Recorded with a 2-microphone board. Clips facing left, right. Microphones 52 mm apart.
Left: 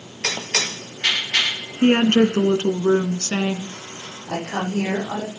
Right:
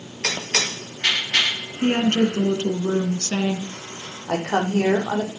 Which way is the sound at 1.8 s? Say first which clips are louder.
Left 4 dB; 40° left (ahead or behind).